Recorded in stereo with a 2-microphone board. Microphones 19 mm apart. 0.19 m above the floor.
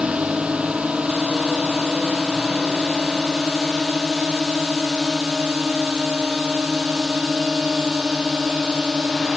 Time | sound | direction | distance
0.0 | a drone | 80° right | ?